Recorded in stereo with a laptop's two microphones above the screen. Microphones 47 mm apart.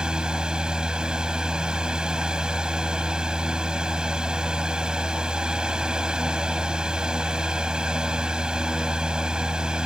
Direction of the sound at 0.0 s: 15° right (ahead or behind).